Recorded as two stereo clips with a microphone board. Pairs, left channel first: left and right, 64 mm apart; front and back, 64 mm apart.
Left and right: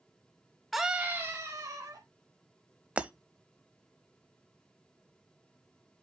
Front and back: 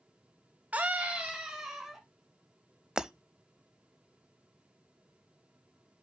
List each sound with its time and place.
0.7 s a scream: straight behind, 1.0 m; by 2.0 s 100° right, 2.0 m
3.0 s breaking glass: 120° right, 0.7 m